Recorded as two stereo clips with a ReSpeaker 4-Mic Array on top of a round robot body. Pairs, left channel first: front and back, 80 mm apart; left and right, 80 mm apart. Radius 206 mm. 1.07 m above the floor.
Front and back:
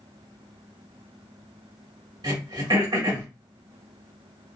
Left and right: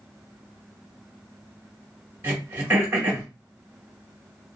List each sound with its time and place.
2.2 s throat clearing: 155° right, 2.5 m